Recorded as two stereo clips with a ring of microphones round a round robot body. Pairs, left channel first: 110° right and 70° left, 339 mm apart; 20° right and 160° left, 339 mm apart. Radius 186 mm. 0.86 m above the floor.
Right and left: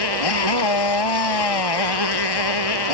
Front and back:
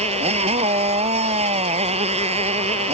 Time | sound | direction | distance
0.0 | a motorcycle | 130° right | ?